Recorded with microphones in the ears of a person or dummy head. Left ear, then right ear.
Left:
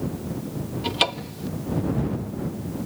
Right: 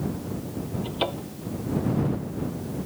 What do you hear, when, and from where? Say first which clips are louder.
0.8 s a cupboard door: left 7 dB; 60° left (ahead or behind)